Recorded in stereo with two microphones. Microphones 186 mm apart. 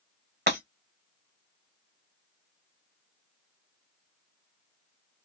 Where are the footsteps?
I don't hear footsteps.